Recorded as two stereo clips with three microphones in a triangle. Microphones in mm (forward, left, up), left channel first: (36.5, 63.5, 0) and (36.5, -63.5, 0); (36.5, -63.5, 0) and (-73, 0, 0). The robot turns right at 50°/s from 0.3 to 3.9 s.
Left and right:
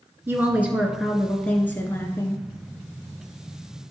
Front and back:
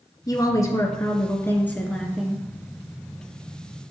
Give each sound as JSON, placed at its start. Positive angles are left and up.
{"t": 0.3, "sound": "a woman speaking", "azimuth_deg": -40, "distance_m": 1.2}